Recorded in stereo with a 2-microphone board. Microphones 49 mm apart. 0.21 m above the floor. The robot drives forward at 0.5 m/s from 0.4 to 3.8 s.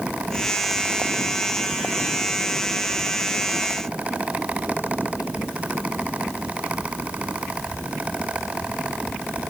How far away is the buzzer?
No buzzer in this recording.